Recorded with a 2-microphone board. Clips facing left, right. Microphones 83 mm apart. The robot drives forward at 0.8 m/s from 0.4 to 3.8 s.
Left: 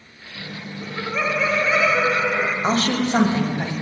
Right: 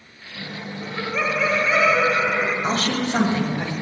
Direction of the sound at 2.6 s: 35° left (ahead or behind).